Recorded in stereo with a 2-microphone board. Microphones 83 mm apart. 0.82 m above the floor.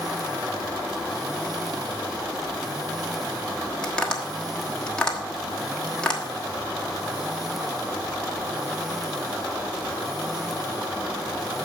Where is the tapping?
10° left (ahead or behind), 1.2 m.